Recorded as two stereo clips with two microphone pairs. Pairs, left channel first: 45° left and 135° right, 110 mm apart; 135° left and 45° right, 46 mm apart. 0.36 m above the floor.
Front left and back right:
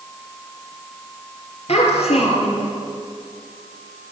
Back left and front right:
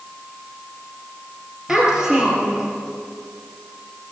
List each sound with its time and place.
1.7 s a child speaking: 35° left, 4.5 m